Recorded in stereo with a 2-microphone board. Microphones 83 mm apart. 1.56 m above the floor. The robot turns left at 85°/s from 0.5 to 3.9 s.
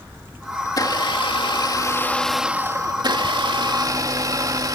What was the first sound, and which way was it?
A blender, 145° left.